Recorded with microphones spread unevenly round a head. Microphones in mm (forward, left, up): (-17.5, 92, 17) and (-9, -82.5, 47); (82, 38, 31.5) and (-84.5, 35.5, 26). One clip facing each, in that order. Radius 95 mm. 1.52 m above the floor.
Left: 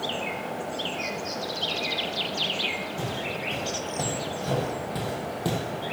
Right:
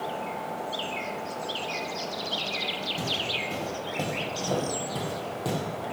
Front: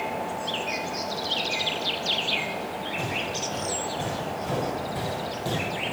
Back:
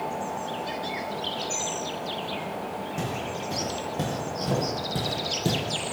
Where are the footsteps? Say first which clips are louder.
Left 1 dB, even; 155° right, 4 m; by 5.6 s 175° left, 2.5 m.